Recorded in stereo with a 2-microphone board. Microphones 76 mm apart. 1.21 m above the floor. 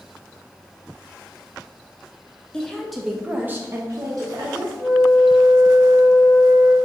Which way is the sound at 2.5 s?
10° left (ahead or behind).